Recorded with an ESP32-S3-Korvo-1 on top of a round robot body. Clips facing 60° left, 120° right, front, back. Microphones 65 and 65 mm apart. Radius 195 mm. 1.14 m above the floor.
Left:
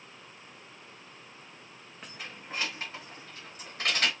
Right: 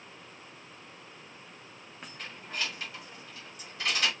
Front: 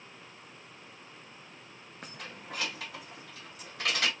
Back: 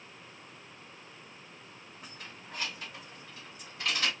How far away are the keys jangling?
About 0.6 m.